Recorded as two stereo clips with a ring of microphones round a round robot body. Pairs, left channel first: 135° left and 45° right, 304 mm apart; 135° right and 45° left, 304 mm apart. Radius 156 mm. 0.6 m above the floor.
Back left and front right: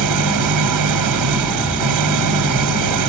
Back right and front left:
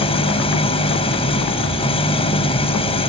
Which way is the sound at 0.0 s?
65° right.